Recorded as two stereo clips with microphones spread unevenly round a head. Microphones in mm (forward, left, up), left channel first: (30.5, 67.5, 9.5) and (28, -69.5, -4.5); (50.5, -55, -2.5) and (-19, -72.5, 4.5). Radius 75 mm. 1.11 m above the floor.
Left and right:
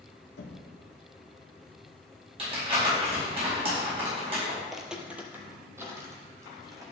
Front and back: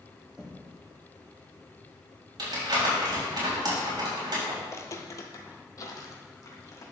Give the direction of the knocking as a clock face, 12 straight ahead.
8 o'clock.